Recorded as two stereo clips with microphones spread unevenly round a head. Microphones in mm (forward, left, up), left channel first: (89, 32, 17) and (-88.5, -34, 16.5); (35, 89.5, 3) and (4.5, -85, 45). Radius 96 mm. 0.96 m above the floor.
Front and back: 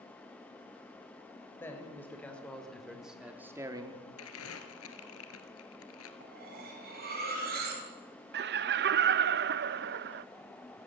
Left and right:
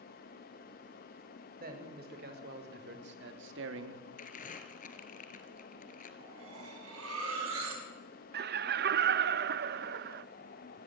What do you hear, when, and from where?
1.6 s a man speaking: 60° right, 5 m; by 4.0 s 95° right, 2 m
4.2 s crumpling: 30° left, 2.5 m
6.2 s cutlery clinking: 115° right, 5.5 m
8.3 s laughter: 135° right, 0.8 m